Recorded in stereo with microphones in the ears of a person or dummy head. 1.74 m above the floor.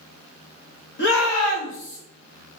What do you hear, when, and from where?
1.0 s a shout: 55° left (ahead or behind), 1.0 m